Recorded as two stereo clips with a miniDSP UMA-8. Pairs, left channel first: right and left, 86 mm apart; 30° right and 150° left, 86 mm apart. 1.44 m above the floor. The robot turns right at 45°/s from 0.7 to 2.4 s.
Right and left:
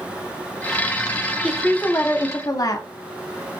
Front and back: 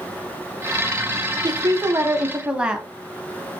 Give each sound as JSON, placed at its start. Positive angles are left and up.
{"t": 1.4, "sound": "a woman speaking", "azimuth_deg": -175, "distance_m": 0.6}